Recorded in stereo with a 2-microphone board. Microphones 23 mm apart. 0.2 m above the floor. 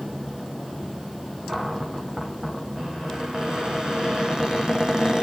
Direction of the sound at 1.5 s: 40° right (ahead or behind).